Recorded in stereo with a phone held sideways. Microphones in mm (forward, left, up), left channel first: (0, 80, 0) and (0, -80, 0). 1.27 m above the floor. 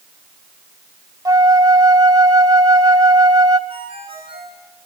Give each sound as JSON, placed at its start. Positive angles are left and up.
{"t": 1.2, "sound": "a flute", "side_deg": -25, "distance_m": 1.2}
{"t": 3.7, "sound": "a ringtone", "side_deg": -35, "distance_m": 9.0}